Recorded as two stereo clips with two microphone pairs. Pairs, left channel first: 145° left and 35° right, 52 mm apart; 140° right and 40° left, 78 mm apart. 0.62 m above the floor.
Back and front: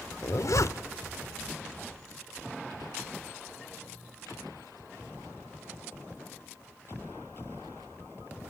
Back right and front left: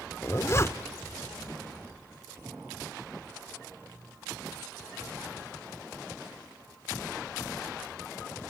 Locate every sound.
0.2 s a zipper: 165° left, 0.6 m